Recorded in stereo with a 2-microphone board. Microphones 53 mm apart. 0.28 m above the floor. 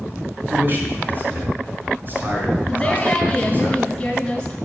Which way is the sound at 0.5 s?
40° right (ahead or behind).